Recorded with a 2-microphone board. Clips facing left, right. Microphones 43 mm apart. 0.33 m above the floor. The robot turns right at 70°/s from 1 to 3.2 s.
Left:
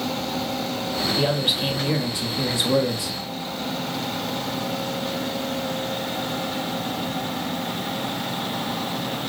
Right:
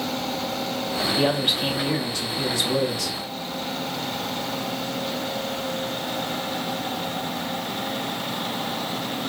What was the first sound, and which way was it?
A man speaking, 10° right (ahead or behind).